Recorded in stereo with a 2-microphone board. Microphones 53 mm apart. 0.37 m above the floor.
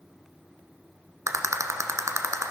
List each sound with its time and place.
1.3 s a rattle: 90° right, 1.1 m